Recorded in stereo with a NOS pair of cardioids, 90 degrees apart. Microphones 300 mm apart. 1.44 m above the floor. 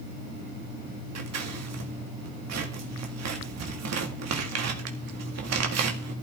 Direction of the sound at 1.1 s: 60° right.